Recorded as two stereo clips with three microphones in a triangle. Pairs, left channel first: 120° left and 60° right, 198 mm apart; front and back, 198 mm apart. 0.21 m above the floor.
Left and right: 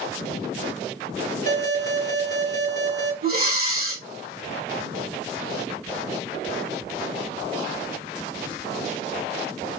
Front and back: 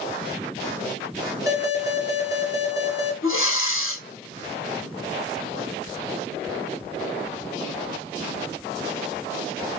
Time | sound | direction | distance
1.5 | an alarm | 30° right | 2.5 m
3.2 | breathing | 15° right | 2.0 m